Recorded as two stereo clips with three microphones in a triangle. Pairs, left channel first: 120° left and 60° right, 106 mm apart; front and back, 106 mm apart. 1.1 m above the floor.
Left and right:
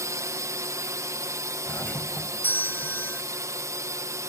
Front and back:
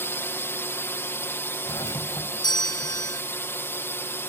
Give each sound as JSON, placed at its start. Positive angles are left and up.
{"t": 0.0, "sound": "a drone", "azimuth_deg": -45}
{"t": 1.7, "sound": "a doorbell", "azimuth_deg": 50}